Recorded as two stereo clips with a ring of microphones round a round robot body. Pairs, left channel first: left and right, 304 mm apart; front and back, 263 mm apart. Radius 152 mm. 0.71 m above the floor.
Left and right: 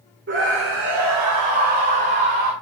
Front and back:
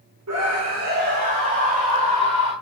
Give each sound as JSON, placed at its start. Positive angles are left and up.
{"t": 0.3, "sound": "a scream", "azimuth_deg": -145, "distance_m": 2.5}